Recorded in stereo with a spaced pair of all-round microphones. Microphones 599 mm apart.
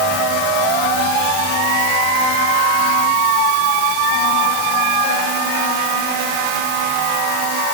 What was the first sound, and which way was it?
Only background noise.